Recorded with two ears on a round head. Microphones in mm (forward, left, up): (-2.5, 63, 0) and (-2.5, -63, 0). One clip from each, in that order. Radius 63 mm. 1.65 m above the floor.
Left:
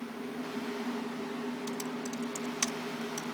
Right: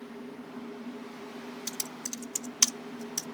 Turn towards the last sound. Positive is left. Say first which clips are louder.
# left 1 dB
turn(degrees=-85)